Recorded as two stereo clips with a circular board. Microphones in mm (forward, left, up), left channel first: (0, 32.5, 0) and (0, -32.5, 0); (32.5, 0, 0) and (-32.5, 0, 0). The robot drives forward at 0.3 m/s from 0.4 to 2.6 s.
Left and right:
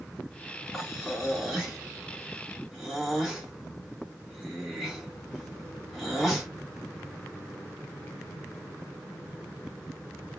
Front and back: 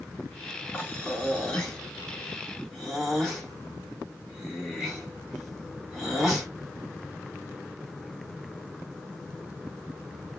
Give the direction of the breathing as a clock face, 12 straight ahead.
12 o'clock.